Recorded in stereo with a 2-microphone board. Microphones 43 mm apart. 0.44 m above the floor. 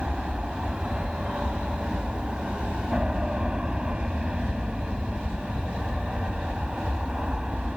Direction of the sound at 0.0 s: 20° right (ahead or behind).